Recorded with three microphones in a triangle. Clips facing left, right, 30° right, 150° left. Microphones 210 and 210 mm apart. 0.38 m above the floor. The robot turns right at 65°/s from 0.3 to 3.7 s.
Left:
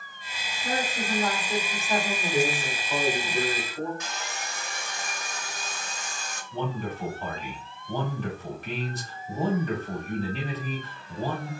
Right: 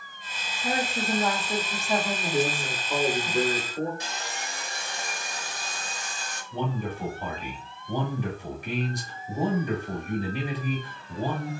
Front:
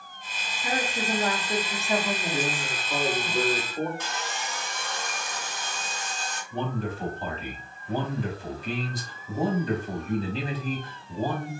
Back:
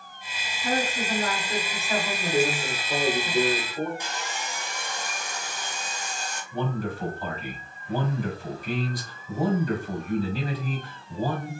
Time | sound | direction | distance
0.6 | a woman speaking | 80° right | 0.8 m
2.3 | a man speaking | 165° left | 1.0 m
4.0 | sawing | 135° right | 0.9 m
6.5 | a man speaking | 35° right | 1.5 m